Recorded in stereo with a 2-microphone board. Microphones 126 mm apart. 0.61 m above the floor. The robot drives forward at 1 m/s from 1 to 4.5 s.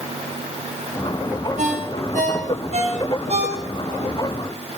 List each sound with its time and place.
1.6 s a ringtone: 80° right, 3 m; by 4.1 s 50° right (ahead or behind), 4 m